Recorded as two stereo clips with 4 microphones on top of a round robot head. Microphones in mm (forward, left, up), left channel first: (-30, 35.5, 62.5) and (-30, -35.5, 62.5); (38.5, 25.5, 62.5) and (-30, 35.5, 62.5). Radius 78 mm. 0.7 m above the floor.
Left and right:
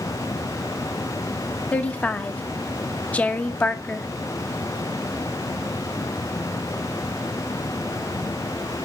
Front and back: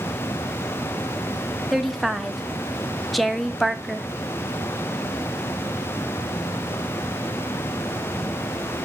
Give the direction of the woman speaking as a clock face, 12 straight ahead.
9 o'clock.